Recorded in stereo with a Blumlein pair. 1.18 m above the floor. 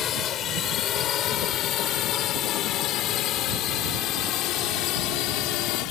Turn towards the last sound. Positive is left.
turn(degrees=40)